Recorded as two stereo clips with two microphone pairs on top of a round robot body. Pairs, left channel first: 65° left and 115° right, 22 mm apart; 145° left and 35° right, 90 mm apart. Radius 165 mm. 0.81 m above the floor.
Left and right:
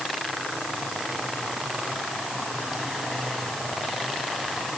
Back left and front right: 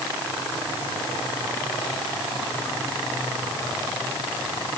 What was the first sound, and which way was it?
Only background noise.